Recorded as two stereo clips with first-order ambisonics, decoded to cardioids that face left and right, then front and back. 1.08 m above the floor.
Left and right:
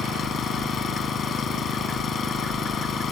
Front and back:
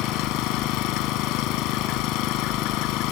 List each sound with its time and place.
0.0 s an engine running: 25° left